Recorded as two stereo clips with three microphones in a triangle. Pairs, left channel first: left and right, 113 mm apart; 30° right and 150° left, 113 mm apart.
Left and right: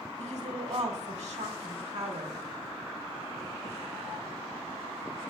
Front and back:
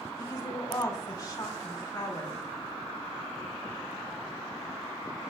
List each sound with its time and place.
0.2 s a woman speaking: 90° right, 1.5 m